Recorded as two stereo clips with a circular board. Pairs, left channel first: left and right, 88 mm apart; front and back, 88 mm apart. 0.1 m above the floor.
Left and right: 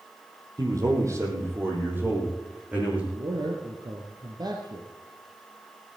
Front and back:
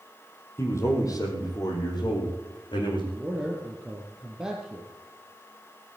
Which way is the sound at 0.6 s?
50° right.